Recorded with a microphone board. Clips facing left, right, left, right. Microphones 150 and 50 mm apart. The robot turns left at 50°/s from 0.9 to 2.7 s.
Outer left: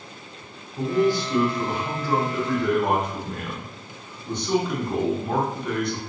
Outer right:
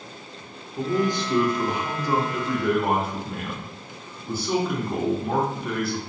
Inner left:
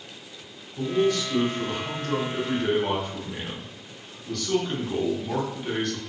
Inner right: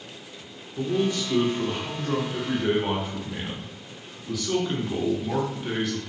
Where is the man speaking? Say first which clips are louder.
Outer left 3 dB, inner left 2 dB; 20° right (ahead or behind), 0.6 m; by 6.0 s 5° right (ahead or behind), 0.6 m.